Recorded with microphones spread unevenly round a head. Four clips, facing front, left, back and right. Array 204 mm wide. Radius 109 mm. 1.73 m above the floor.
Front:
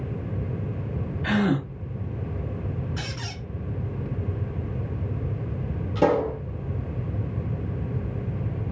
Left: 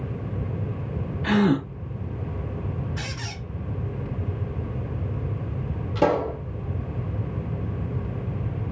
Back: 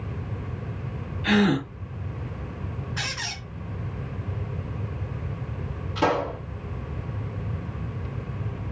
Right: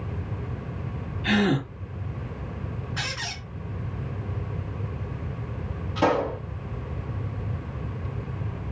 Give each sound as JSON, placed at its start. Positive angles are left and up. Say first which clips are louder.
{"t": 1.2, "sound": "a gasp", "louder": "left 2 dB, back 2 dB", "azimuth_deg": 95, "distance_m": 1.4}
{"t": 3.0, "sound": "a squeak", "louder": "right 1 dB, back 1 dB", "azimuth_deg": -50, "distance_m": 1.6}
{"t": 6.0, "sound": "a pop", "louder": "left 1 dB, front 3 dB", "azimuth_deg": 40, "distance_m": 1.6}